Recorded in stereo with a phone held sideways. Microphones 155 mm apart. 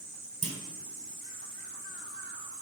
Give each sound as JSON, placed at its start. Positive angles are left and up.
{"t": 0.4, "sound": "a clunk", "side_deg": -45, "distance_m": 1.2}